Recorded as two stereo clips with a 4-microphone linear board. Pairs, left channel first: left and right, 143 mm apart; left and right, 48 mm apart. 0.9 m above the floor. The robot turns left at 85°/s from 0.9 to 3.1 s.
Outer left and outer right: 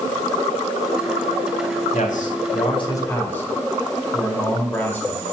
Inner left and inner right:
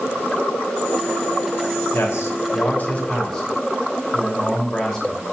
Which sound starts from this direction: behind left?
A man speaking, at 1.9 s.